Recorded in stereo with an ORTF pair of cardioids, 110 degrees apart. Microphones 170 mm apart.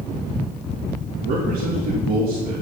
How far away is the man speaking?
About 4 m.